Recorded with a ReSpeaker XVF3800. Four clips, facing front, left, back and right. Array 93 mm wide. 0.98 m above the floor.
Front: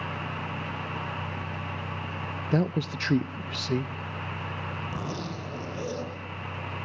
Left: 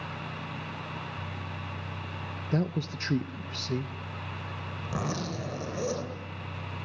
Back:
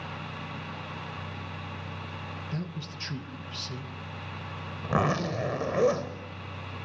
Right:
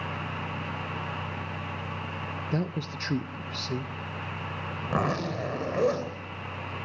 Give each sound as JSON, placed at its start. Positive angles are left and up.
{"t": 2.5, "sound": "a man speaking", "azimuth_deg": 0, "distance_m": 0.6}
{"t": 4.8, "sound": "a zipper", "azimuth_deg": -145, "distance_m": 3.0}